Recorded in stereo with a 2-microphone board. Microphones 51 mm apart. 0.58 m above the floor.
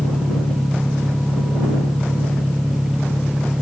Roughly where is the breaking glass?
No breaking glass in this recording.